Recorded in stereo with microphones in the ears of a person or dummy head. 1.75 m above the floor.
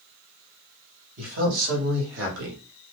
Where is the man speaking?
65° right (ahead or behind), 1.1 m; by 2.6 s 70° right (ahead or behind), 1.4 m.